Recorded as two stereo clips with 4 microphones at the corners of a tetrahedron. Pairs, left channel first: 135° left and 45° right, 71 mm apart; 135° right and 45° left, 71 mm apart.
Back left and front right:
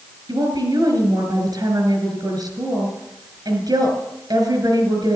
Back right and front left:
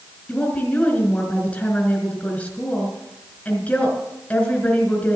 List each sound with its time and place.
0.3 s a woman speaking: 65° right, 4.5 m